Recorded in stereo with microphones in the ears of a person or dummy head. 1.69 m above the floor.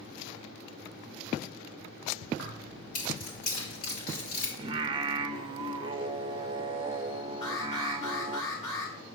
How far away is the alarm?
About 3 m.